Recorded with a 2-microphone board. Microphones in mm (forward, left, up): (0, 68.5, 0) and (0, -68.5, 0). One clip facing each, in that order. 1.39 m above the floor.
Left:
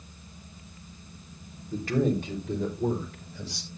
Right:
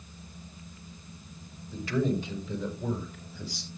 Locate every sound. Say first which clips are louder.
1.7 s a man speaking: left 3 dB; 45° left (ahead or behind), 3.5 m; by 3.7 s 85° left, 4.5 m